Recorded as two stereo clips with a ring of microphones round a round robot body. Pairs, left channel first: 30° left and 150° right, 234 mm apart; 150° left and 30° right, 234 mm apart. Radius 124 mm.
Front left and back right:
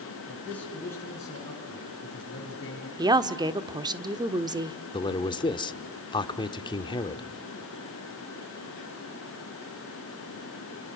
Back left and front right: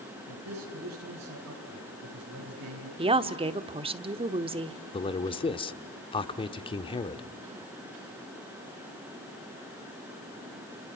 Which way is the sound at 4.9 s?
90° left.